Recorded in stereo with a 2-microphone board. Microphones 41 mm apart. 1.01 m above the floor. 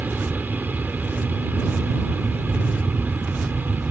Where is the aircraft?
50° right (ahead or behind).